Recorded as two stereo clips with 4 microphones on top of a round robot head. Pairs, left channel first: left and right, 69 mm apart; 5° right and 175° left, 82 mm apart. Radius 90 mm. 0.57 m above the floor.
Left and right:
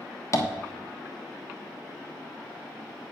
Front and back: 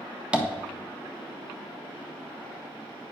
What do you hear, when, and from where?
0.3 s tapping: 105° left, 1.4 m